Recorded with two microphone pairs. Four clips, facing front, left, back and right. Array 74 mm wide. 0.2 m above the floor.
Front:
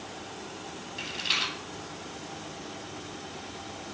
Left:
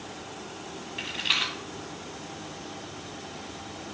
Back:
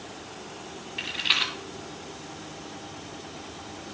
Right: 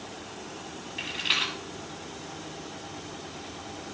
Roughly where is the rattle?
Behind.